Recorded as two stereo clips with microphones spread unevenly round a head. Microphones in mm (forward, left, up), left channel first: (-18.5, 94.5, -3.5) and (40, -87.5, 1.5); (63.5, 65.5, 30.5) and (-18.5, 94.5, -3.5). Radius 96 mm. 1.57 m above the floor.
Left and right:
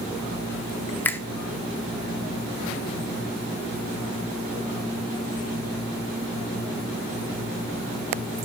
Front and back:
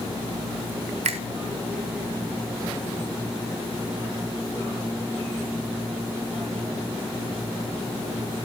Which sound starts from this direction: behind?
A finger snap, at 1.1 s.